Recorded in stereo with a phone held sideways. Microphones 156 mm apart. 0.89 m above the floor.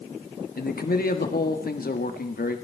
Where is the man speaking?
75° left (ahead or behind), 1.5 m.